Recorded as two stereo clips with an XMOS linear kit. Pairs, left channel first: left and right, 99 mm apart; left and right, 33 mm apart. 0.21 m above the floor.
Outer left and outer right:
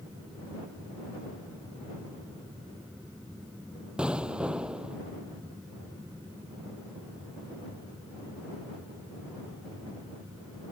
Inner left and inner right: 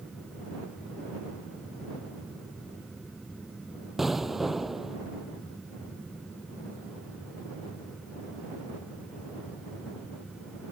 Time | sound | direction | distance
4.0 | an explosion | 10° right (ahead or behind) | ?